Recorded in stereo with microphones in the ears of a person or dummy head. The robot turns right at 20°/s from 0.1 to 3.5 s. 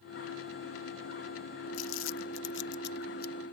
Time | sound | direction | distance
1.7 | crumpling | 85° left | ?